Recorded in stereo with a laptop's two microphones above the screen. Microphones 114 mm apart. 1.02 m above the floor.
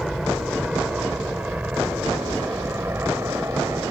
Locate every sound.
0.0 s an aircraft: centre (ahead or behind); by 3.9 s 25° right (ahead or behind)